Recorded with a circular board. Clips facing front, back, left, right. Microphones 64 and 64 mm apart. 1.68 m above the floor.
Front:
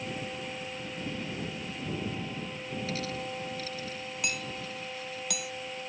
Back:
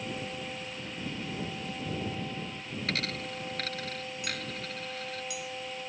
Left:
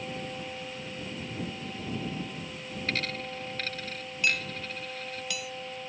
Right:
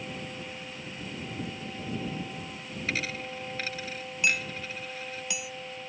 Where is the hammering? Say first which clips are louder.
Front 4 dB, right 1 dB; 20° right.